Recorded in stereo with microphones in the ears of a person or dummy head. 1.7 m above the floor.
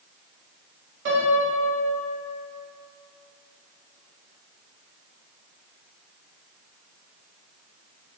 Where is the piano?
55° right (ahead or behind), 1.4 m.